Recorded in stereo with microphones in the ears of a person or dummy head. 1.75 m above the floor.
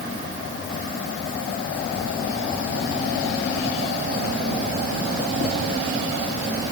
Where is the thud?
I don't hear a thud.